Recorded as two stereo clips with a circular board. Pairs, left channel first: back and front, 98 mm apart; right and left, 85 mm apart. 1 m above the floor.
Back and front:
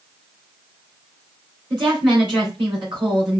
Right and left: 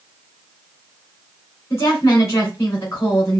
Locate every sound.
1.7 s a woman speaking: 40° right, 4 m